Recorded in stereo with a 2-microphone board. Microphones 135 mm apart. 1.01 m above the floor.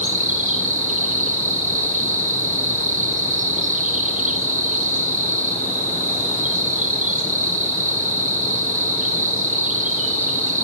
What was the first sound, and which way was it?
An insect, 85° right.